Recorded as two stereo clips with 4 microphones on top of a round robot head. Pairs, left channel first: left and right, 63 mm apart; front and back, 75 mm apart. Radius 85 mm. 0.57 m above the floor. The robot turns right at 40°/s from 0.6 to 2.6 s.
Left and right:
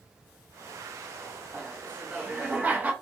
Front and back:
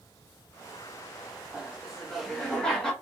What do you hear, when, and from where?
1.5 s laughter: 110° right, 1.1 m; by 2.9 s 70° right, 1.1 m